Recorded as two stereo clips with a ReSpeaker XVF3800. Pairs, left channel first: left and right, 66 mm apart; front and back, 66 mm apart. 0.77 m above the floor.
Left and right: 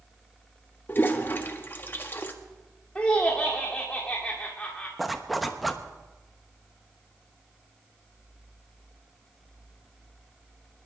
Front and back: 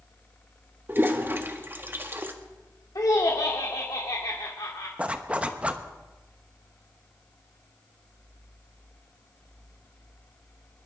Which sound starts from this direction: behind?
A zipper, at 5.0 s.